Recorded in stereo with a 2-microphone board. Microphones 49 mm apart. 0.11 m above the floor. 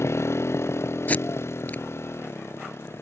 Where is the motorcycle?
70° left (ahead or behind); by 3.0 s 65° left (ahead or behind).